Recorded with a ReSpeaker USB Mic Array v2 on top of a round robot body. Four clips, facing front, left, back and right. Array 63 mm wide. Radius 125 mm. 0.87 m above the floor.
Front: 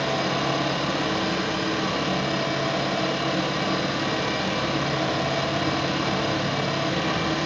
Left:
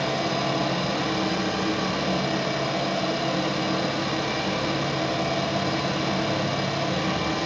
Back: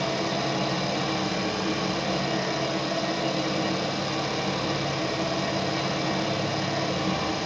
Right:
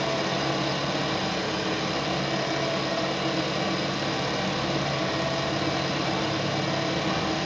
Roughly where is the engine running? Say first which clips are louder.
Left 1 dB, front 3 dB; ahead.